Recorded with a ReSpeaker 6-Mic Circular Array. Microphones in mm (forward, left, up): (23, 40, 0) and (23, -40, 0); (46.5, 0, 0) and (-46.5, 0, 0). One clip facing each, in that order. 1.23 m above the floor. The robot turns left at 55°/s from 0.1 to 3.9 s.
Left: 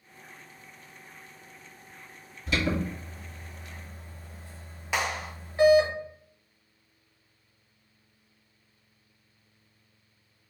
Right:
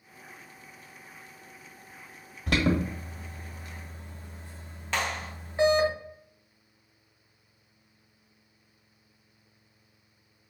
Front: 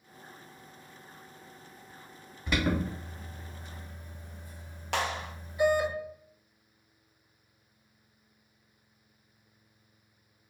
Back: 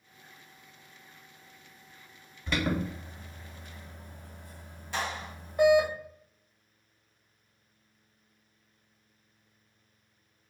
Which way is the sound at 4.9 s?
10° left.